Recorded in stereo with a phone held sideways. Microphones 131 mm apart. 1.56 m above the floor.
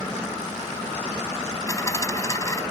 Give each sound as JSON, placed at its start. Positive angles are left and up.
{"t": 1.7, "sound": "a dropped coin", "side_deg": 25}